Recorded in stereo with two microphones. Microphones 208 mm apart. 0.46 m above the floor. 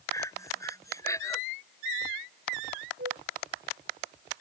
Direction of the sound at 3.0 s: 60° right (ahead or behind).